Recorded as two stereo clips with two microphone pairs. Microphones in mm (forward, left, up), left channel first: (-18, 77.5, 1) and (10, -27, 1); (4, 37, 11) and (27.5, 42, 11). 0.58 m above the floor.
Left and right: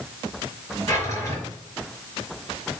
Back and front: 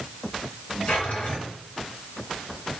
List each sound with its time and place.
0.9 s a drawer: 165° left, 4.5 m